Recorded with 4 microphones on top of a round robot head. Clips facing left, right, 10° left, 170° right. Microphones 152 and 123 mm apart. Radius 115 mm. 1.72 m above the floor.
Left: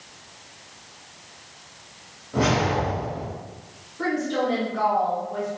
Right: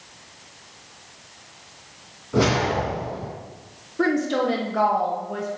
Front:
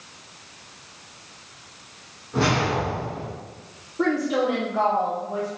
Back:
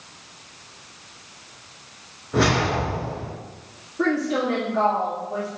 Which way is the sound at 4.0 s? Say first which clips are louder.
Right 3 dB, even; 70° right.